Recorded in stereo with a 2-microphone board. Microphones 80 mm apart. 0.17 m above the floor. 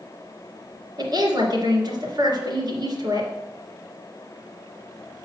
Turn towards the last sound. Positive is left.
turn(degrees=-55)  # may be behind; listen again after turning